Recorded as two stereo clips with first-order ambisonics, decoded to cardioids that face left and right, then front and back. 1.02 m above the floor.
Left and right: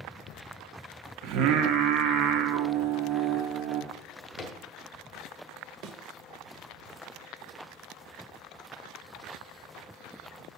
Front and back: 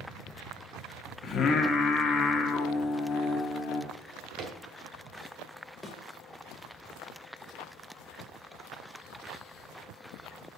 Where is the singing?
65° right, 1.0 m.